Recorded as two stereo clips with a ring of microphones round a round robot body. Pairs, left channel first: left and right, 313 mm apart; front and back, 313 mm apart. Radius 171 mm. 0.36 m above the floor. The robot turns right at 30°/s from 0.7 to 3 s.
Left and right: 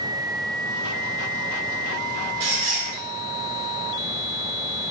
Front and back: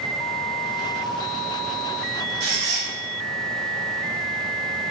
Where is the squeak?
120° right, 1.1 m; by 2.9 s 105° right, 1.1 m.